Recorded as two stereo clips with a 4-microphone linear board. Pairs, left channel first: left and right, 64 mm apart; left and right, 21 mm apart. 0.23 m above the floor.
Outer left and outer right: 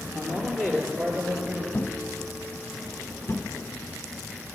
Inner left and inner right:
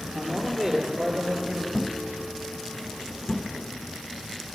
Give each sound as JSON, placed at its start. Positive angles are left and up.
{"t": 0.1, "sound": "a man speaking", "side_deg": 10, "distance_m": 5.0}
{"t": 1.7, "sound": "a thud", "side_deg": 45, "distance_m": 0.7}